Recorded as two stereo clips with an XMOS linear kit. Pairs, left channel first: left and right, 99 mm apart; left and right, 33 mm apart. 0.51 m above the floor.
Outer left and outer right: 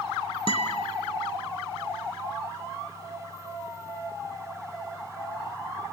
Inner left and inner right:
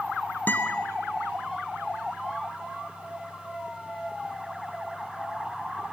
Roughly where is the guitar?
Left.